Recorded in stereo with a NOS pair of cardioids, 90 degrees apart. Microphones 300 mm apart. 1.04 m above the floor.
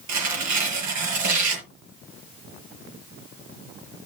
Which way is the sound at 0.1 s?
70° right.